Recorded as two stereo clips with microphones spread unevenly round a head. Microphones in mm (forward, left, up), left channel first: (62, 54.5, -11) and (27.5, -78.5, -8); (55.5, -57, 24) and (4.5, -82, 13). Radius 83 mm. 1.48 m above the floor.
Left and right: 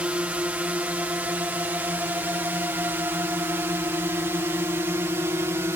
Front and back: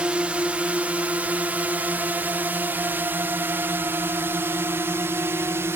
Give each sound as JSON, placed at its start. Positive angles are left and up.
{"t": 0.0, "sound": "a drone", "azimuth_deg": -175}